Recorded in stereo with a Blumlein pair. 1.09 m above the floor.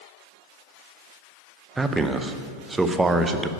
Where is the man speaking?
10° right, 0.5 m.